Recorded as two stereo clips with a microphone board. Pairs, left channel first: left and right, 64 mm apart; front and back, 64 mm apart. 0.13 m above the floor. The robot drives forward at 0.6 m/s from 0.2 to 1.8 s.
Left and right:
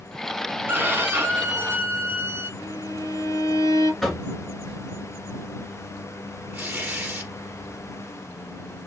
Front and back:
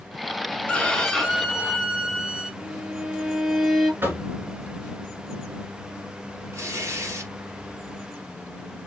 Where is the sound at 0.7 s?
60° right, 1.2 m; by 2.5 s 105° right, 1.2 m.